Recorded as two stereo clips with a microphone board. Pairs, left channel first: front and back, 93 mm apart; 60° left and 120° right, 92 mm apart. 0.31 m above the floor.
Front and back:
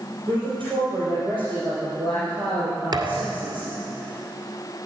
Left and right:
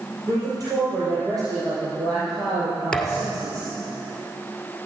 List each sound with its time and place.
0.3 s a woman speaking: 160° right, 7 m
2.9 s a thud: 140° left, 1.7 m